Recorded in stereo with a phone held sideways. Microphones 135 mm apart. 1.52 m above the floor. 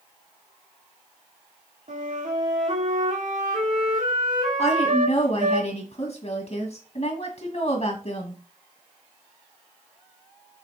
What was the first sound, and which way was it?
A flute, 70° right (ahead or behind).